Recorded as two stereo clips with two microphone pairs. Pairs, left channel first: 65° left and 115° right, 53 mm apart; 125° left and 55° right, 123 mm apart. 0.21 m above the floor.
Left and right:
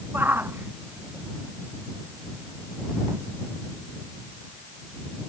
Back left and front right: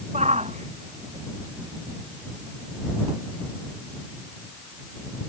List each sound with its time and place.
0.1 s a shout: 70° right; by 3.2 s 80° right